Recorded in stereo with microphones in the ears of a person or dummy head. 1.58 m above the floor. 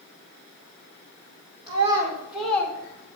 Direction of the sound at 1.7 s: 25° right (ahead or behind).